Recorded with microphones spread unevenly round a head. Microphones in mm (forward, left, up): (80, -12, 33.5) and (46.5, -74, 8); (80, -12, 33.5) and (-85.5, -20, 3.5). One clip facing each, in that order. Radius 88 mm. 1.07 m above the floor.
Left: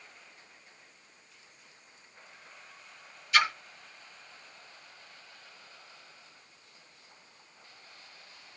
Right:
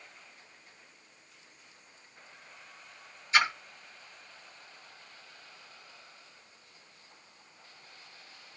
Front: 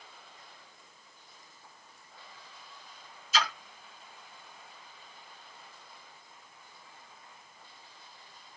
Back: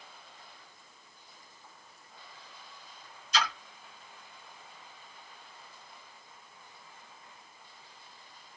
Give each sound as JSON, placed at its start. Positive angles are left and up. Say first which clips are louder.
{"t": 3.3, "sound": "a splash", "louder": "even, even", "azimuth_deg": -90, "distance_m": 1.1}